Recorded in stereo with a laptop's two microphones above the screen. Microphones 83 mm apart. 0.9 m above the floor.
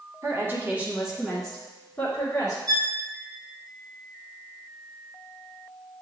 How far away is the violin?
About 0.6 m.